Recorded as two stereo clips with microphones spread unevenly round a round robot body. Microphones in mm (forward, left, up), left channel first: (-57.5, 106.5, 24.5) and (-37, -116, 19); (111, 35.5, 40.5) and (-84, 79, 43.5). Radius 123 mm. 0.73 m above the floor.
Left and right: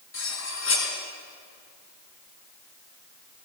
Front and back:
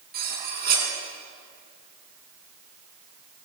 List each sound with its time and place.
0.1 s cutlery clinking: 125° left, 5.5 m